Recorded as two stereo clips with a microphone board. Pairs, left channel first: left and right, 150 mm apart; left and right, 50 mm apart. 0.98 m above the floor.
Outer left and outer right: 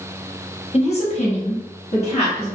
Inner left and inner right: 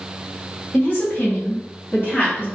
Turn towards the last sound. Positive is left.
turn(degrees=45)  # may be behind; listen again after turning